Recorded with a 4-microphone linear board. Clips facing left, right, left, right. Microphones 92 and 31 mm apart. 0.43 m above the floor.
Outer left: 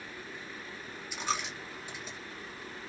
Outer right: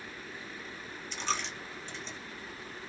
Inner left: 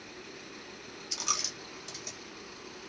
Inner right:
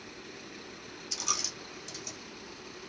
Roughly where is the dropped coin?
Centre.